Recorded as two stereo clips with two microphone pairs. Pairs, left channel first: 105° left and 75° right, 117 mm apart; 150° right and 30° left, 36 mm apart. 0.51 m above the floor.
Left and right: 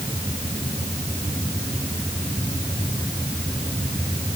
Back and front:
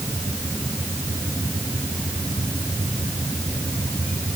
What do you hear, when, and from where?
Only background noise.